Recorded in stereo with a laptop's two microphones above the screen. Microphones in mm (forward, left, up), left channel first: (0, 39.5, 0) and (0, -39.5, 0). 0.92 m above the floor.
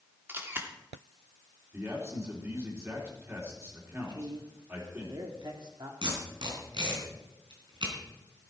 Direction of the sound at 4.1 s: 60° right (ahead or behind).